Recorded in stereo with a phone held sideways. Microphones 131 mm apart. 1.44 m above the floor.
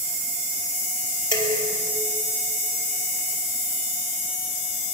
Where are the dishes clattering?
40° left (ahead or behind), 5 m.